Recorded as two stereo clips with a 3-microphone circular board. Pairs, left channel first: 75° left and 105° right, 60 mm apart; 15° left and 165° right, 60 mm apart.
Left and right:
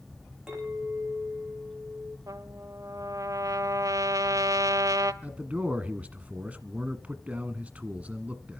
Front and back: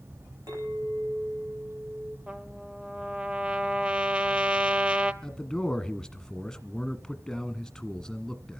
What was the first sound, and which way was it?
A clink, 175° left.